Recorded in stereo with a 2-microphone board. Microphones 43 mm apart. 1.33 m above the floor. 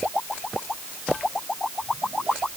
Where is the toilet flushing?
No toilet flushing in this recording.